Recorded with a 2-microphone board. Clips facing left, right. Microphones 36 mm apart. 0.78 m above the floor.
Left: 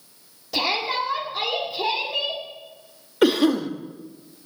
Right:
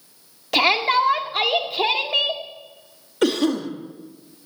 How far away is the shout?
About 2.0 m.